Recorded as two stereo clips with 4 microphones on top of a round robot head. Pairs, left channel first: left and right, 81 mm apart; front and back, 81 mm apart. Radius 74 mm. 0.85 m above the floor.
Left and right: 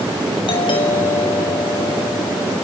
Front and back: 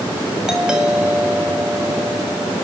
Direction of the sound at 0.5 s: 100° left.